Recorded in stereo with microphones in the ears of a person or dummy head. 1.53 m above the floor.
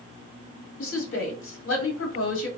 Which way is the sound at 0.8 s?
75° left (ahead or behind).